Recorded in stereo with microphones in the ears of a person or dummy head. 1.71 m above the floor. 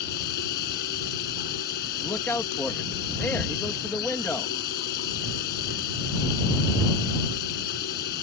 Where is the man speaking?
10° left (ahead or behind).